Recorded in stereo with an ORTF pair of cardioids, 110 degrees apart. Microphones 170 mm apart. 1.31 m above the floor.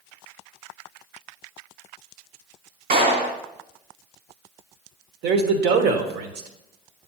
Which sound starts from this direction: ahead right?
A clap, at 2.9 s.